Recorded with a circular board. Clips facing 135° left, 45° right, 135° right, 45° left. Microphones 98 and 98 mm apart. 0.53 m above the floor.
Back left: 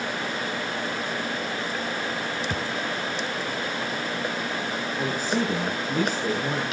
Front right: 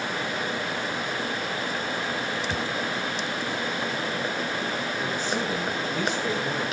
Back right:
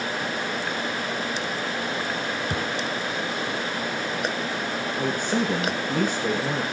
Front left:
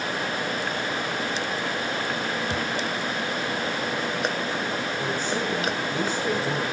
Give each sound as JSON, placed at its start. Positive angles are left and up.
{"t": 2.5, "sound": "a thud", "azimuth_deg": 180, "distance_m": 2.5}
{"t": 5.0, "sound": "a man speaking", "azimuth_deg": -175, "distance_m": 5.0}